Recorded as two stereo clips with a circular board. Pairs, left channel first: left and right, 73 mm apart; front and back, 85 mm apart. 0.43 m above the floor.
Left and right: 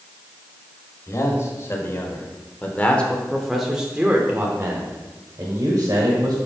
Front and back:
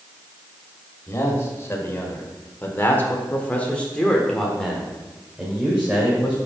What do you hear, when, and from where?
1.1 s a man speaking: 55° left, 1.8 m; by 6.4 s 105° right, 1.8 m